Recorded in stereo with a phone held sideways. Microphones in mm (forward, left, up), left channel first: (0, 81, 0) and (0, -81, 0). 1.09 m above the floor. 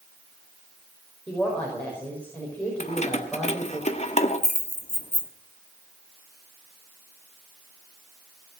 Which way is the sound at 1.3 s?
10° left (ahead or behind).